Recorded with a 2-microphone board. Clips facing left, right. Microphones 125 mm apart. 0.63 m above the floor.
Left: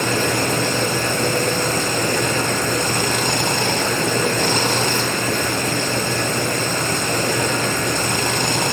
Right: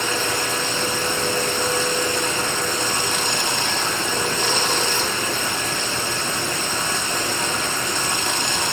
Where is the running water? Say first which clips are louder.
Left 5 dB; 60° left (ahead or behind), 1.2 m.